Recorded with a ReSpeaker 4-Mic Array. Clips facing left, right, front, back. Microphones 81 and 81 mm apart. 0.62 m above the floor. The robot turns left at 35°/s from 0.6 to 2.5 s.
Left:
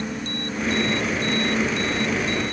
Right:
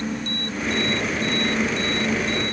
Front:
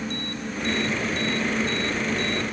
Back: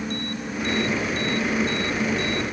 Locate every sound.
Only background noise.